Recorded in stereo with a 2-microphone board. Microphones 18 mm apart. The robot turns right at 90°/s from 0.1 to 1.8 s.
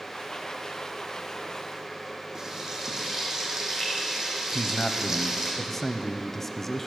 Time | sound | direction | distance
2.4 | frying | 35° right (ahead or behind) | 3.5 m
4.5 | a man speaking | 15° left (ahead or behind) | 0.9 m